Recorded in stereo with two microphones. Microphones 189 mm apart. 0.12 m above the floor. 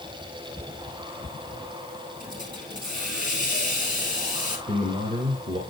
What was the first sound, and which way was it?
A hiss, 55° right (ahead or behind).